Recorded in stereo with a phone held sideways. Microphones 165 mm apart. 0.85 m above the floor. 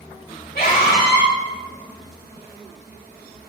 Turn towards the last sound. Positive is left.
turn(degrees=65)  # may be behind; listen again after turning